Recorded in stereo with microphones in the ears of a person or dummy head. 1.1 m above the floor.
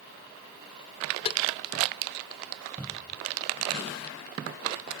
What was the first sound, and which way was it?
Tapping, 30° left (ahead or behind).